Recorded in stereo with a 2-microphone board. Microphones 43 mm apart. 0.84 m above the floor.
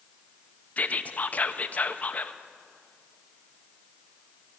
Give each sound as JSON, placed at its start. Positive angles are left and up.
{"t": 0.8, "sound": "whispering", "side_deg": 35, "distance_m": 0.5}